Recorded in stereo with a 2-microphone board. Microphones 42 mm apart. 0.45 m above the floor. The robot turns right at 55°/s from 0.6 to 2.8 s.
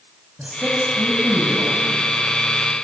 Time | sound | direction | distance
0.4 | a man speaking | 150° right | 3 m